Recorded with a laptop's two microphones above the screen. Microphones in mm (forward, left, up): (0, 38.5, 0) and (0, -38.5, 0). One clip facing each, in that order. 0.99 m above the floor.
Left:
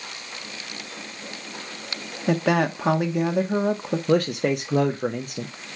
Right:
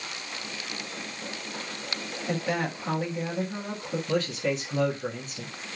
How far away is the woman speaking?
About 1.3 m.